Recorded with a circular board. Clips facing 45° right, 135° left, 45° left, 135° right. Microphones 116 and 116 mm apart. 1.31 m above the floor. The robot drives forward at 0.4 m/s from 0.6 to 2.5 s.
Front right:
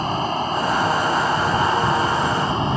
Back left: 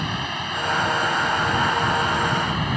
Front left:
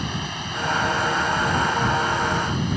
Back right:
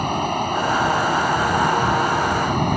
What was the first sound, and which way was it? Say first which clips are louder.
Running water: front right 7 dB, back right 9 dB; 100° right.